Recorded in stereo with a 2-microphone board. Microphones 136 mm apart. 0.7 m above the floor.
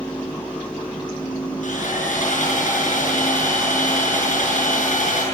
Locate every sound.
1.6 s sawing: 65° left (ahead or behind), 8.5 m